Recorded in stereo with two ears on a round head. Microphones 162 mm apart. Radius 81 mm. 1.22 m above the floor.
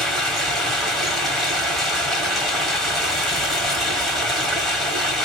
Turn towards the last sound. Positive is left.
turn(degrees=0)  # may be behind; listen again after turning